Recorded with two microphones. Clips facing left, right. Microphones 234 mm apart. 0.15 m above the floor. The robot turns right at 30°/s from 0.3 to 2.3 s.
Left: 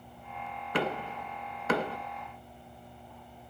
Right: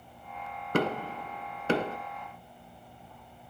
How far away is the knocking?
About 1.3 m.